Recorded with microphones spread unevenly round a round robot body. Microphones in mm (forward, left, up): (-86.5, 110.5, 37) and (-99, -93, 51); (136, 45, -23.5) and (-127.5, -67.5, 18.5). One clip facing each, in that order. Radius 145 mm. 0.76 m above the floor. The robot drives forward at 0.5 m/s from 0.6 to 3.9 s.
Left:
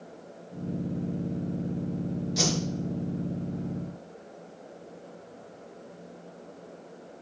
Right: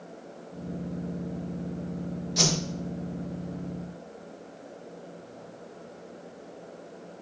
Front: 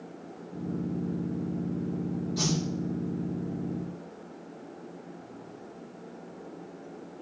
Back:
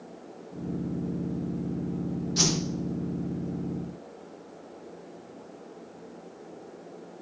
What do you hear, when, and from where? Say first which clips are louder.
2.4 s a whoosh: right 1 dB, back 2 dB; 170° left, 1.3 m